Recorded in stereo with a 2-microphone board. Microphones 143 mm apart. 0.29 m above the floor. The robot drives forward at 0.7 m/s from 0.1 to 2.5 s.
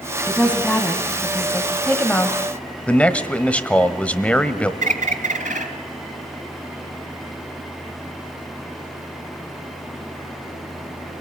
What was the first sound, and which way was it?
A woman speaking, 10° left (ahead or behind).